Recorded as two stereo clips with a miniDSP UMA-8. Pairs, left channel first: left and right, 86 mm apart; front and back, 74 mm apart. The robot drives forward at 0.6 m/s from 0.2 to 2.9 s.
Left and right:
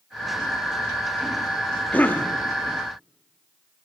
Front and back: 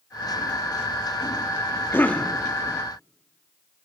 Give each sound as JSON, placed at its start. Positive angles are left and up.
{"t": 1.9, "sound": "a cough", "azimuth_deg": 35, "distance_m": 0.6}